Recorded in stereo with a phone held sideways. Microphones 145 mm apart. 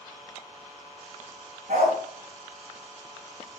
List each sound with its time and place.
1.7 s a dog barking: 60° right (ahead or behind), 3.5 m